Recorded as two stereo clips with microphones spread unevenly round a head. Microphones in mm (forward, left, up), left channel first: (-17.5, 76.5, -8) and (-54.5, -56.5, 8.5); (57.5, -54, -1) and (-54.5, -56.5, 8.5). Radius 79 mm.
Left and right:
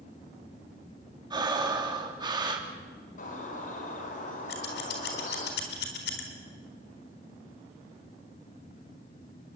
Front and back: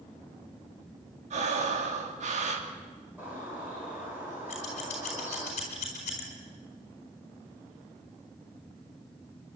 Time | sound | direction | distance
1.3 | breathing | 165° right | 2.5 m
3.2 | a bird | 105° left | 4.5 m
4.5 | scissors | 55° left | 4 m